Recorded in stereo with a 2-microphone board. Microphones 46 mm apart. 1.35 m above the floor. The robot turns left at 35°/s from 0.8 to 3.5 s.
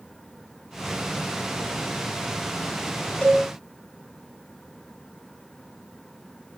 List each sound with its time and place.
3.2 s a cowbell: 25° left (ahead or behind), 3.5 m; by 3.4 s 20° left (ahead or behind), 3.5 m